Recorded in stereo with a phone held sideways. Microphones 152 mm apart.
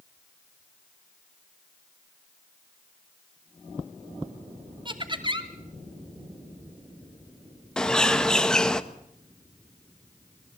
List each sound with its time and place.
4.8 s laughter: 30° right (ahead or behind), 2.5 m
7.8 s a bird: 5° left (ahead or behind), 1.1 m